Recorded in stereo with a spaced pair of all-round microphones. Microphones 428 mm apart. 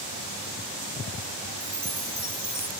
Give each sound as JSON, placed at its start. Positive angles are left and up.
{"t": 1.6, "sound": "a chime", "side_deg": -65}